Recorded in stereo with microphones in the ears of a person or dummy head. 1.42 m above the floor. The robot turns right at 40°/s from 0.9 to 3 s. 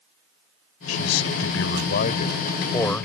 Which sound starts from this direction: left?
A man speaking, at 0.9 s.